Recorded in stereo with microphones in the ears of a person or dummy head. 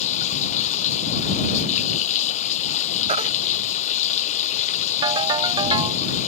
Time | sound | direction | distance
0.0 | running water | 40° left (ahead or behind) | ?
3.1 | a baby crying | 40° right (ahead or behind) | ?
5.0 | a ringtone | 25° right (ahead or behind) | ?